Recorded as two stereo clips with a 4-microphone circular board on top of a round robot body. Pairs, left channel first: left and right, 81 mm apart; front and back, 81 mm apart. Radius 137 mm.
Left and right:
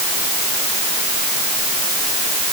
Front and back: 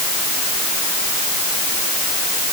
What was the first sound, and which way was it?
Only background noise.